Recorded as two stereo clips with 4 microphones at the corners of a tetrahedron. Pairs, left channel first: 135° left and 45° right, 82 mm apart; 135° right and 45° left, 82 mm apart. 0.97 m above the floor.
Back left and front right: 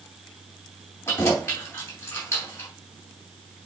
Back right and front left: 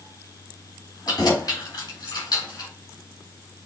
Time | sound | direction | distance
1.1 | keys jangling | 170° right | 4 m